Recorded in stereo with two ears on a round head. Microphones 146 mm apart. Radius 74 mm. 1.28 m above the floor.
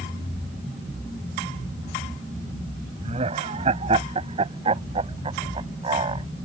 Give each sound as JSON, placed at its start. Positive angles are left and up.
{"t": 3.0, "sound": "laughter", "side_deg": -40}